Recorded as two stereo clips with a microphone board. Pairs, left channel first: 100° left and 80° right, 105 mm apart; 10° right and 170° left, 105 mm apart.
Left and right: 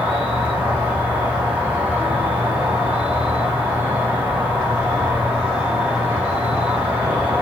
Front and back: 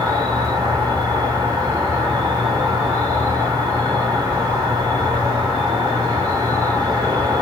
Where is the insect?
150° right, 0.9 m.